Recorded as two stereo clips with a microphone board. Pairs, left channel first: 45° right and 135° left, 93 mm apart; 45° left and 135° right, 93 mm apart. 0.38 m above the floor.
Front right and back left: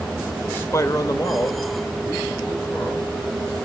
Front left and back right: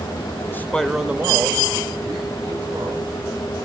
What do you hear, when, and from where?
0.5 s a man speaking: 10° left, 1.0 m; by 3.2 s 95° right, 3.5 m